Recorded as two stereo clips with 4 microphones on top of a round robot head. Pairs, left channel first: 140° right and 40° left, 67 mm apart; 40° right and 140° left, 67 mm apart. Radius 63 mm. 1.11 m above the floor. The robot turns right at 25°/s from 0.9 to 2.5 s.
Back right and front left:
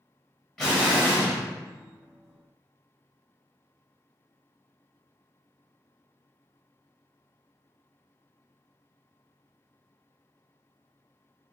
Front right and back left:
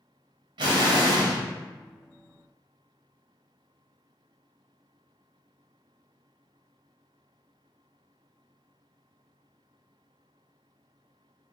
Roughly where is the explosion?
Behind left.